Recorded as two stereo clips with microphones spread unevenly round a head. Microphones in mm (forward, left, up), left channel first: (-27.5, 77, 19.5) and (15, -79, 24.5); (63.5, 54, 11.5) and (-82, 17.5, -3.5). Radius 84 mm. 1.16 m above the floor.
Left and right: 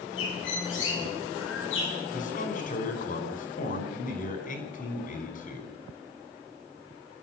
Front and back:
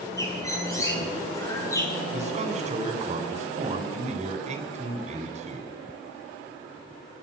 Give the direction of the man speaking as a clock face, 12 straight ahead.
7 o'clock.